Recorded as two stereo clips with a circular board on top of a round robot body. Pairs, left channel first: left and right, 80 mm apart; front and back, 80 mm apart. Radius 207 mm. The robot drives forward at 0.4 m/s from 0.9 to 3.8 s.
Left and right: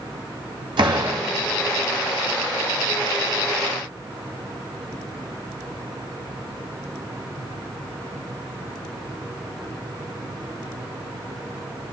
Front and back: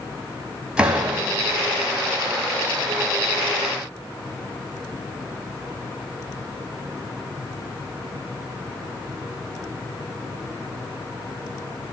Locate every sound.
0.8 s a door slam: 100° right, 3 m; by 1.2 s 105° right, 3 m